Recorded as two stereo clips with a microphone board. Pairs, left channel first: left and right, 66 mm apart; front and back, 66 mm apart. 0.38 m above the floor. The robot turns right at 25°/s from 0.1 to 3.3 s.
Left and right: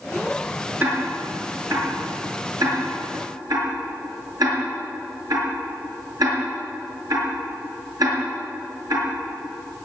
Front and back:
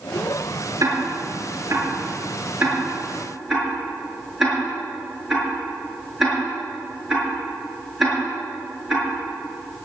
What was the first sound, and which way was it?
Ticking, 155° right.